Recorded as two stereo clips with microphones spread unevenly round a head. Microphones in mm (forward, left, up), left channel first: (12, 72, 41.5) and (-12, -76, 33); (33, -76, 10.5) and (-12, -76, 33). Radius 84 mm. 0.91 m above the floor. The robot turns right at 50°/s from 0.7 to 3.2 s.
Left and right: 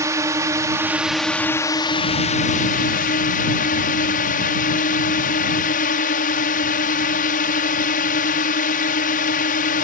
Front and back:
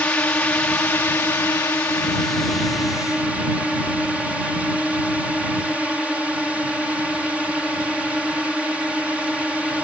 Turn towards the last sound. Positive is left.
turn(degrees=90)